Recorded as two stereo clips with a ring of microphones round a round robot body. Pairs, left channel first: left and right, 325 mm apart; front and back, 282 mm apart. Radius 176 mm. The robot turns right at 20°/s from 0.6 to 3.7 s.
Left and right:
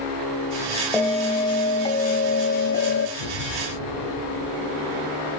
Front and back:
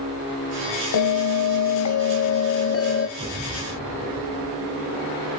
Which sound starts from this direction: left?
An explosion, at 3.2 s.